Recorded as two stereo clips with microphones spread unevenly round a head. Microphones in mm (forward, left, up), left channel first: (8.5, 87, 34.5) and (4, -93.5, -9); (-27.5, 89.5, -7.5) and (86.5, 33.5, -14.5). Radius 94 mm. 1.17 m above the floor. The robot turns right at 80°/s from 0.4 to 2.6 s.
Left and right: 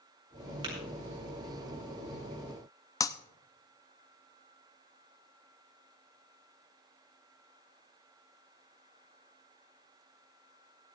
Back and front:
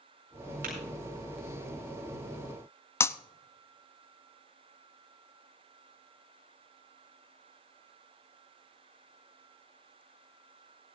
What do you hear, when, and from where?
0.6 s tapping: 30° right, 8 m; by 0.7 s 20° right, 8 m
3.0 s breaking glass: 110° left, 0.5 m